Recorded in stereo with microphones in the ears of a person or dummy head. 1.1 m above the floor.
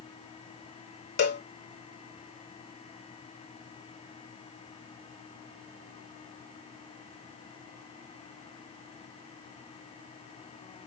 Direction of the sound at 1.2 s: 50° left (ahead or behind).